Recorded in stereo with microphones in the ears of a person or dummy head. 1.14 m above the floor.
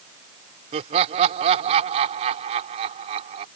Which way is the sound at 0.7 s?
35° right (ahead or behind).